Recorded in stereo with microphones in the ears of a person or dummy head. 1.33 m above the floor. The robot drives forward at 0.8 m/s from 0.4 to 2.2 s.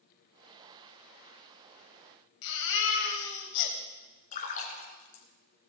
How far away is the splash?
About 2.5 m.